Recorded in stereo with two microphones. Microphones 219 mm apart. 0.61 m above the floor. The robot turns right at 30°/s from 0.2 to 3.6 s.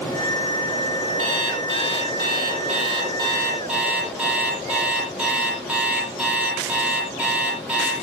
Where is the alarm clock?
80° right, 9 m; by 7.9 s 5° right, 9 m.